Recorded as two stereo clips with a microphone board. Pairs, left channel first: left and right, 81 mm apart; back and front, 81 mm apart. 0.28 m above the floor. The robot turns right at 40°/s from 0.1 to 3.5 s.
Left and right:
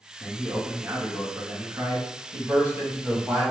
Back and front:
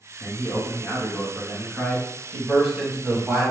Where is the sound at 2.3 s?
95° right, 1.1 m; by 3.5 s 45° right, 1.1 m.